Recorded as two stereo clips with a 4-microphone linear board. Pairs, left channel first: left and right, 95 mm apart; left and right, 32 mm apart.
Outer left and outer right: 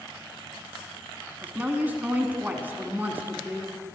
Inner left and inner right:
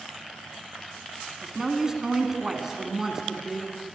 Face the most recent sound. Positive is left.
turn(degrees=-20)  # may be behind; listen again after turning